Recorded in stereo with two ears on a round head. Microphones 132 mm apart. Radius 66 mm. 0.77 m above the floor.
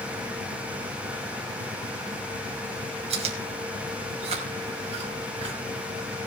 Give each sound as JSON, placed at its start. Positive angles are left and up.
{"t": 3.1, "sound": "chewing", "side_deg": -45, "distance_m": 2.5}